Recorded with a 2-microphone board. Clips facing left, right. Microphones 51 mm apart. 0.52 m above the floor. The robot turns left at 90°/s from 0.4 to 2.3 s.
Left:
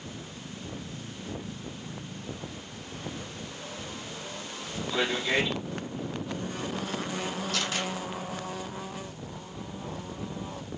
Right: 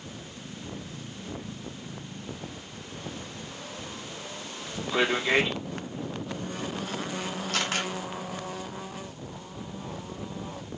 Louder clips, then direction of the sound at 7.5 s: Right 4 dB; 55° right (ahead or behind).